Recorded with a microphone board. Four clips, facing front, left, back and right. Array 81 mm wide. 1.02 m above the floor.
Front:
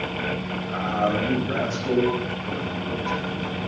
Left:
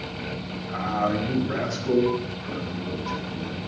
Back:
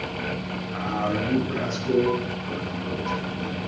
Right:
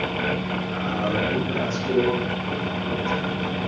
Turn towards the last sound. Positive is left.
turn(degrees=25)